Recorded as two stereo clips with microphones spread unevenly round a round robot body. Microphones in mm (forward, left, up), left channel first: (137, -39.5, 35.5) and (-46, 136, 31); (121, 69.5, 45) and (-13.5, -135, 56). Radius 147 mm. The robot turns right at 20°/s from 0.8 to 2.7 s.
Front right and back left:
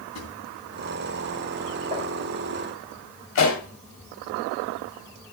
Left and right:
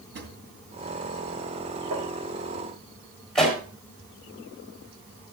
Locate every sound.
0.1 s a drawer: 85° right, 2.5 m
1.9 s tapping: 150° right, 3.5 m; by 2.1 s 145° right, 3.5 m
3.4 s a pop: 30° right, 4 m